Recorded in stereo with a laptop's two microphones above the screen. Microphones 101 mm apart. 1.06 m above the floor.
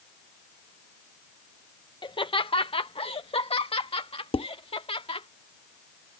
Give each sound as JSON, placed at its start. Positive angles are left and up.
{"t": 2.0, "sound": "laughter", "side_deg": 50}
{"t": 4.3, "sound": "dishes clattering", "side_deg": 65}